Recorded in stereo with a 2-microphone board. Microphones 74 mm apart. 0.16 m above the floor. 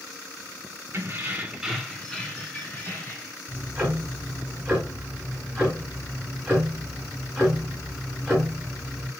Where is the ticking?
10° right (ahead or behind), 1.8 m.